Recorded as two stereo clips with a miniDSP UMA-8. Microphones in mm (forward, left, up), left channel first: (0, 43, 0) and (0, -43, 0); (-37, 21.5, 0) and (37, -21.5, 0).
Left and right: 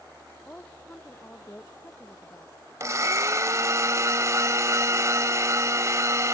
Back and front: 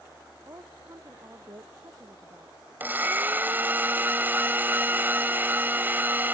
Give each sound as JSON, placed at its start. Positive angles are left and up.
{"t": 0.5, "sound": "a woman speaking", "azimuth_deg": 20}
{"t": 2.8, "sound": "a blender", "azimuth_deg": -80}